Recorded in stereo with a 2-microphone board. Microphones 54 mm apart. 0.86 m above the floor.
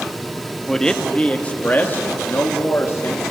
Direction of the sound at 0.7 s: 10° left (ahead or behind).